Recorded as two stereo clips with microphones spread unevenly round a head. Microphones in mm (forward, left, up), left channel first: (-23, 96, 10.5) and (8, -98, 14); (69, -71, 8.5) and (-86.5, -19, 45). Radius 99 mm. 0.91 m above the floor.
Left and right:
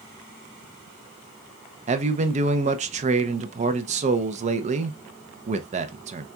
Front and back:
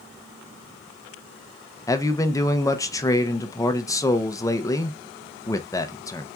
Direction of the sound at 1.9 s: 50° right.